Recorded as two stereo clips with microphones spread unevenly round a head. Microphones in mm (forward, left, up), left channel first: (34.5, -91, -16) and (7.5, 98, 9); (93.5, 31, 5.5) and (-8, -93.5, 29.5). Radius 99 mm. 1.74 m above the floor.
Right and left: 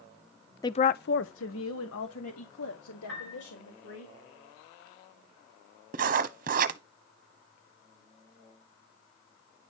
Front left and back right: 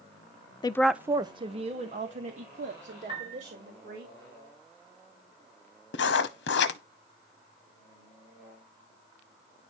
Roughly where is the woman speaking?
Ahead.